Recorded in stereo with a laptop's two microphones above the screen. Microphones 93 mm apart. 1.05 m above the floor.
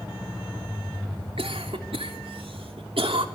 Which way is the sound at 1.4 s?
80° right.